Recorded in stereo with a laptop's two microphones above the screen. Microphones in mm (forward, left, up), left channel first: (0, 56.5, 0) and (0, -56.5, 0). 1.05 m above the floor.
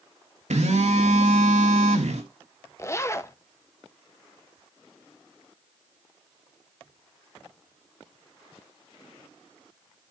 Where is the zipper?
25° left (ahead or behind), 0.7 m.